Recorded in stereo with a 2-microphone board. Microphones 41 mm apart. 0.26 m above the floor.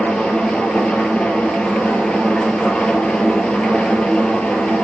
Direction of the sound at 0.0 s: 25° left (ahead or behind).